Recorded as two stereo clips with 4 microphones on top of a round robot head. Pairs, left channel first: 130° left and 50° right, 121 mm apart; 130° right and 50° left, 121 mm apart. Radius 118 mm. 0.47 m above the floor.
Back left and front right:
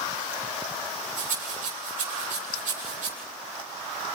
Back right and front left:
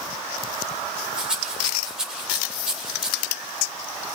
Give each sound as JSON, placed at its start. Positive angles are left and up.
{"t": 1.2, "sound": "a rattle", "azimuth_deg": -35, "distance_m": 8.0}